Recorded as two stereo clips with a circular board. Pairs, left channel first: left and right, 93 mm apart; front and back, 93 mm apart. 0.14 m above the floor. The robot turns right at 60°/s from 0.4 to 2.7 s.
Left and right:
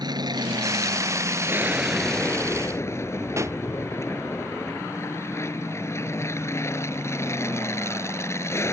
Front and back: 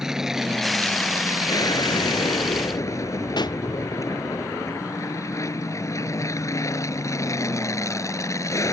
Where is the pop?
35° right.